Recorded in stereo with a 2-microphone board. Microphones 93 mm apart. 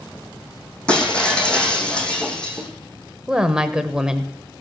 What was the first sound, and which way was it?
Breaking glass, 10° left (ahead or behind).